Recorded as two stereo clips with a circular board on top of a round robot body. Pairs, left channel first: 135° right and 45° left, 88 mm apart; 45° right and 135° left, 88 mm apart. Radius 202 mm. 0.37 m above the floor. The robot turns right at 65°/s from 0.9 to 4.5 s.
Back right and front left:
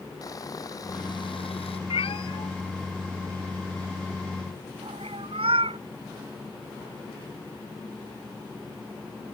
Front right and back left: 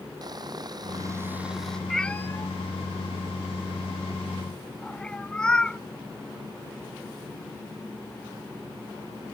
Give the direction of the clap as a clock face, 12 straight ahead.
No clap in this recording.